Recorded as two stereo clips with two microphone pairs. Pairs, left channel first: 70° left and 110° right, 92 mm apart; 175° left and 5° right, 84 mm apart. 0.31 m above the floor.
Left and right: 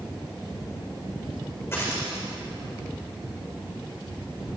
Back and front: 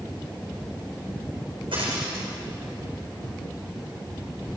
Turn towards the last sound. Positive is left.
turn(degrees=5)